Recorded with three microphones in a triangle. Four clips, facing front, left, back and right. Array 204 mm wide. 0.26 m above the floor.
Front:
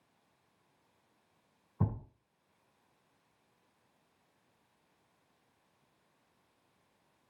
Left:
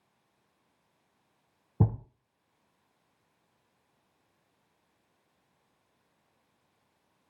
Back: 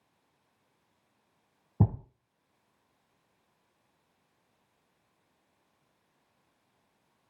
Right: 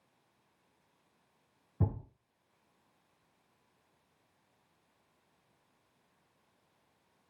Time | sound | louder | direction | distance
1.8 | a thud | left 6 dB, back 7 dB | 135° left | 0.8 m